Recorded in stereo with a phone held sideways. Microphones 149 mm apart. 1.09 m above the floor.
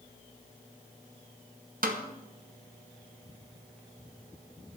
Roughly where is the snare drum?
Right.